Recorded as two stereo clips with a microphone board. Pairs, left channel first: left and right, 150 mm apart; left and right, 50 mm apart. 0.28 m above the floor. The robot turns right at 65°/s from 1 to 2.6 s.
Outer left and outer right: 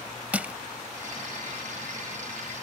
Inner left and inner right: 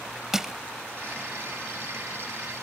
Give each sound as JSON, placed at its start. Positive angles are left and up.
{"t": 0.3, "sound": "crushing", "side_deg": -10}